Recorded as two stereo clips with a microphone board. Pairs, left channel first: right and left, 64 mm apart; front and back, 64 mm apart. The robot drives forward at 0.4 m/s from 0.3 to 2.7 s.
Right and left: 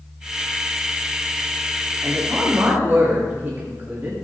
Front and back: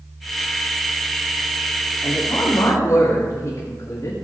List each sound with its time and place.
2.0 s a woman speaking: 30° left, 7.5 m; by 4.1 s 35° left, 7 m